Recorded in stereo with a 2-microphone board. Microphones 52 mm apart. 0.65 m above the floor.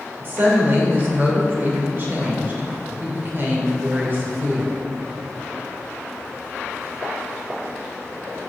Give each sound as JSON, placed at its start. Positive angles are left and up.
{"t": 0.2, "sound": "a woman speaking", "side_deg": -40, "distance_m": 2.5}